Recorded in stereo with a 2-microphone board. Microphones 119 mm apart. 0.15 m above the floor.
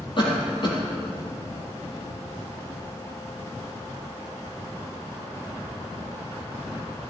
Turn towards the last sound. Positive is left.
turn(degrees=45)  # may be behind; listen again after turning